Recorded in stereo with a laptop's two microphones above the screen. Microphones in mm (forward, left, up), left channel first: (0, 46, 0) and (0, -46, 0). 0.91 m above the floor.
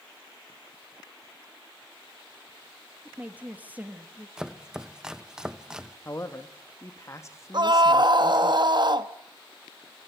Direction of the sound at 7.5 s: 55° right (ahead or behind).